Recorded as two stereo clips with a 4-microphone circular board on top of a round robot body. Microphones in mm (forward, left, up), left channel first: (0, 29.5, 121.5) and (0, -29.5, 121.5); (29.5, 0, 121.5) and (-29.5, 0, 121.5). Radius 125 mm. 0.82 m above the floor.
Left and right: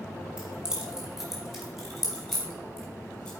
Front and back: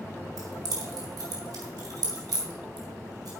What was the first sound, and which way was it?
Keys jangling, 165° right.